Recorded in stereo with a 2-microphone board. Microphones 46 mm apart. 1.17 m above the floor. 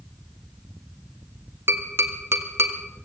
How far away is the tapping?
About 1.2 m.